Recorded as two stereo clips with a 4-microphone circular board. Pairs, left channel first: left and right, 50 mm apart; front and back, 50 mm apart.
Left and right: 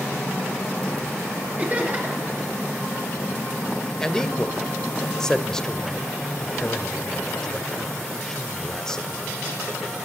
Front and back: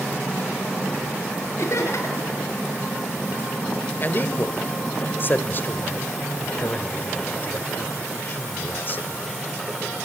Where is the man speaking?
15° left, 1.3 m.